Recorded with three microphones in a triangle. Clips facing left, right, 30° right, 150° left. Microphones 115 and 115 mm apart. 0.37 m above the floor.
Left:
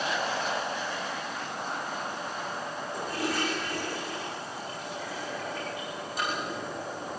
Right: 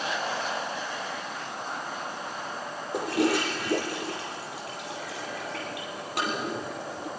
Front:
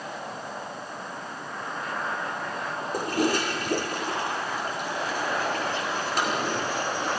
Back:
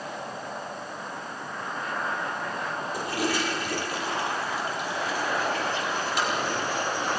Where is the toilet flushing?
75° right, 4.5 m.